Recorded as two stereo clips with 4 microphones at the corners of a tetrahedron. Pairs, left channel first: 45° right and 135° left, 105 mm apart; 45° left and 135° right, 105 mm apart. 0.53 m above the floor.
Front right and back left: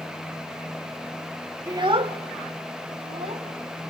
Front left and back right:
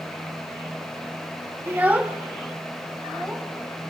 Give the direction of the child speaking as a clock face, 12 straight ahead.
6 o'clock.